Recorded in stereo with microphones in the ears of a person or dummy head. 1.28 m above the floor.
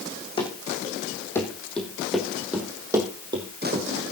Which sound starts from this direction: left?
Running footsteps, at 0.4 s.